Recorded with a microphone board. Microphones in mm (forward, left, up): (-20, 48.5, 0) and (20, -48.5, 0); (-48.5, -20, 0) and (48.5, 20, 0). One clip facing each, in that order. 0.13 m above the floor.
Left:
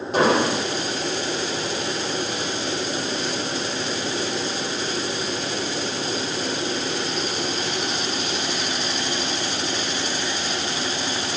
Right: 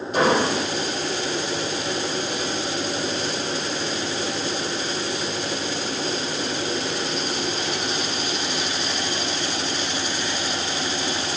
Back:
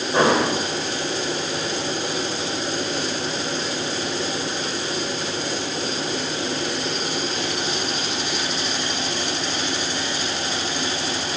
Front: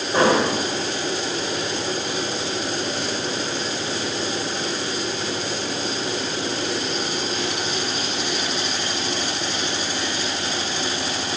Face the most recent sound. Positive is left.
turn(degrees=135)